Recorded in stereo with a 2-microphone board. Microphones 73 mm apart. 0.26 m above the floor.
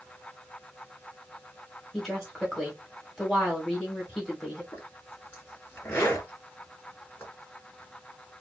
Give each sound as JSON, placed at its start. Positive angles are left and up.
{"t": 1.9, "sound": "a woman speaking", "side_deg": 5, "distance_m": 1.4}
{"t": 4.7, "sound": "a zipper", "side_deg": 30, "distance_m": 2.0}